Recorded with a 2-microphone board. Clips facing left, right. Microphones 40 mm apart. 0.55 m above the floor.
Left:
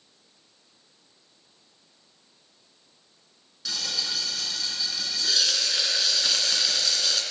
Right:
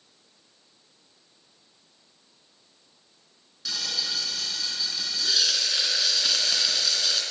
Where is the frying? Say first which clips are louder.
Even; centre (ahead or behind), 3 m.